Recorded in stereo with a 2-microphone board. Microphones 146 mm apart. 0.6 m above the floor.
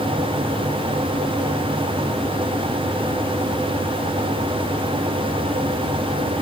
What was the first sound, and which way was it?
Only background noise.